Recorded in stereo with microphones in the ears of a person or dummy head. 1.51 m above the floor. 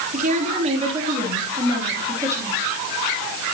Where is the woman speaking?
40° right (ahead or behind), 3.5 m; by 2.6 s 15° right (ahead or behind), 4 m.